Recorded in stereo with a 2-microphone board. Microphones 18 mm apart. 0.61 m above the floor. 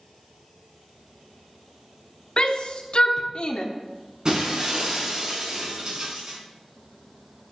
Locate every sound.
2.4 s a shout: 60° left (ahead or behind), 1.0 m
4.2 s breaking glass: 45° right (ahead or behind), 3.5 m